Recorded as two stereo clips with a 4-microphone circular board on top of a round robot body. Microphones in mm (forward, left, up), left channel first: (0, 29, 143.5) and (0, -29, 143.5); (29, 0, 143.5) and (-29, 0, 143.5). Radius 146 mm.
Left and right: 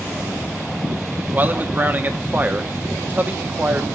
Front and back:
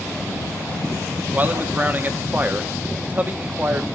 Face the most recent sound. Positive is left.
turn(degrees=-135)